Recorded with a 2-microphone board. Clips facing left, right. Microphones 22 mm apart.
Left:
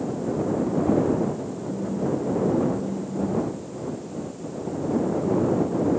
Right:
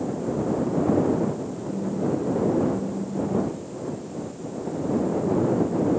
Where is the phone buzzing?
20° right (ahead or behind).